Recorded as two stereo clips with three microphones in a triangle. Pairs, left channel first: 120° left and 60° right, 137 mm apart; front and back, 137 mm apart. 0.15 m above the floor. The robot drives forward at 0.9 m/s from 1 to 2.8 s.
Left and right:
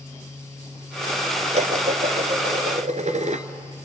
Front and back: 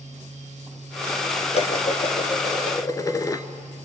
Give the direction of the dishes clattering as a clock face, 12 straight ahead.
1 o'clock.